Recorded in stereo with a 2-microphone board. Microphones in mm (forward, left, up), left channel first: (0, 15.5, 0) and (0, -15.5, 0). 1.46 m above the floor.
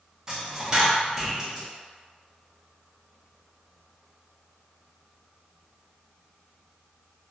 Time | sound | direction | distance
0.3 | a dropped coin | 20° right (ahead or behind) | 0.9 m